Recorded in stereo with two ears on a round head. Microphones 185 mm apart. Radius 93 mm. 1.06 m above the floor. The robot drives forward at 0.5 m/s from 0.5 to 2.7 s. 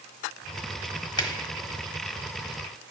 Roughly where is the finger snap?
Left.